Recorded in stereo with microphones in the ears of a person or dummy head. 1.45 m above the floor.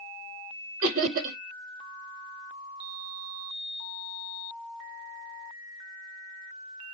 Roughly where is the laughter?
Right.